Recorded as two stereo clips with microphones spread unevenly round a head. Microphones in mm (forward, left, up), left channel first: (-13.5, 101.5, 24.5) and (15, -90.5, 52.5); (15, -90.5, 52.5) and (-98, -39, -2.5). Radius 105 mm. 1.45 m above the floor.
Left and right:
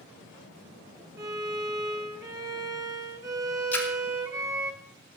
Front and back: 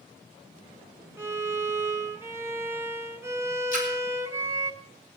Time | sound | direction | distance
1.2 | a violin | 100° right | 0.8 m
3.7 | a splash | 15° left | 2 m